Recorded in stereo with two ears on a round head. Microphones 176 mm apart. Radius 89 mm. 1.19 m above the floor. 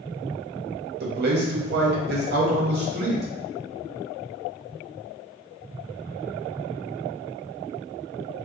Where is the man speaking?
55° right (ahead or behind), 0.8 m.